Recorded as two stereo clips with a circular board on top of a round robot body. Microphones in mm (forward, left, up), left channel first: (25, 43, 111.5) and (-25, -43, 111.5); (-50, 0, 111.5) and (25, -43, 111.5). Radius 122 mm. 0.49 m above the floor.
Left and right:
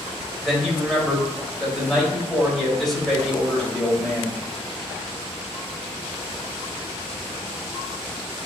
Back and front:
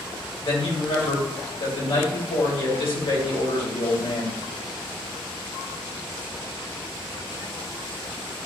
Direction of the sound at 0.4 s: 150° left.